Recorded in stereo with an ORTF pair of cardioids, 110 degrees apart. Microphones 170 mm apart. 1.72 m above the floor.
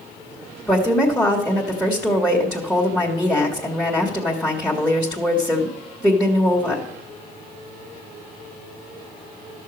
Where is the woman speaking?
Straight ahead, 2.0 m.